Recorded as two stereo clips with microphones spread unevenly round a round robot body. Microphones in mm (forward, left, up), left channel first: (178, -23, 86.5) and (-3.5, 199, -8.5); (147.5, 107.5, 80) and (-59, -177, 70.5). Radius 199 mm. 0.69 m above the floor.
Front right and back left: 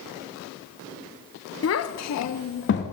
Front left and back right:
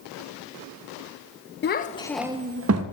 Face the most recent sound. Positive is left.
turn(degrees=-120)